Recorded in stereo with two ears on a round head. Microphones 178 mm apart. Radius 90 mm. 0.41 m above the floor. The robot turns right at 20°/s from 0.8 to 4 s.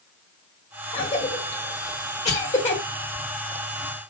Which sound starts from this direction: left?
A cough, at 0.9 s.